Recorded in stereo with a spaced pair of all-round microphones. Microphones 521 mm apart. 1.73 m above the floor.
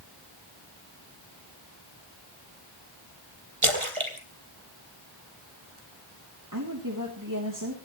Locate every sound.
3.6 s a splash: 70° right (ahead or behind), 3.5 m
6.5 s a woman speaking: 35° right (ahead or behind), 3 m